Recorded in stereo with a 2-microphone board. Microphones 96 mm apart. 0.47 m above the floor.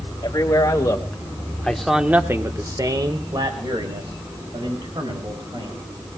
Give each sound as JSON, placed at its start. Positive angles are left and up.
{"t": 0.2, "sound": "a man speaking", "side_deg": 40, "distance_m": 3.0}